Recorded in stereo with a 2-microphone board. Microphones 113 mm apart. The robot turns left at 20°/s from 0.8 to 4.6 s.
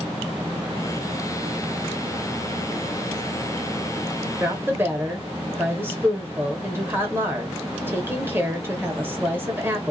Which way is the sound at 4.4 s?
20° right (ahead or behind).